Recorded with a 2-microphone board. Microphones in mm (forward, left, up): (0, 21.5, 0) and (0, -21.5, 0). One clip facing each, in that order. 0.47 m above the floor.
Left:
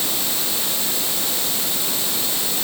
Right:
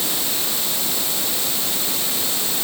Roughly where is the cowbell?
I don't hear a cowbell.